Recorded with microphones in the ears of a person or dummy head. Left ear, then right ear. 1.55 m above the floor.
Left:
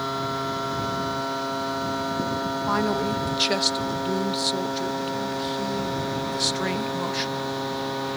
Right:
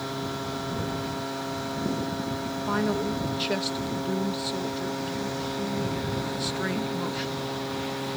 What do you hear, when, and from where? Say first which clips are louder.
0.0 s a machine running: left 5 dB; 55° left (ahead or behind)
2.7 s a man speaking: left 3 dB; 35° left (ahead or behind)